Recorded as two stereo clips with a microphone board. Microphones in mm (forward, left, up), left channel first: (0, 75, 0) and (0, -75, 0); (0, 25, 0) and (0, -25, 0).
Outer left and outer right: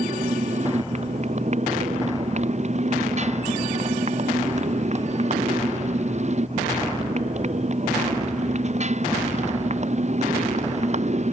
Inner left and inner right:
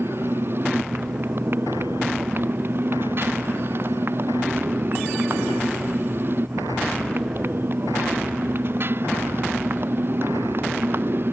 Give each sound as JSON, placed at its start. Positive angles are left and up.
{"t": 0.0, "sound": "a motorcycle", "side_deg": -50}